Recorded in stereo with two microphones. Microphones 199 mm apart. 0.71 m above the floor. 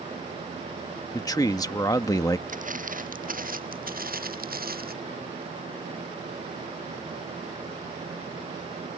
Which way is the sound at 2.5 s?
40° right (ahead or behind).